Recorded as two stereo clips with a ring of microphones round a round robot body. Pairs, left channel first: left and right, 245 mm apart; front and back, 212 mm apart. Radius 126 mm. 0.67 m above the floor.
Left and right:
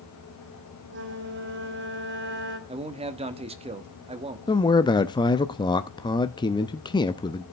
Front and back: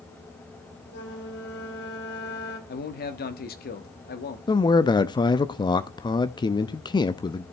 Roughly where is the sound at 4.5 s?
Ahead left.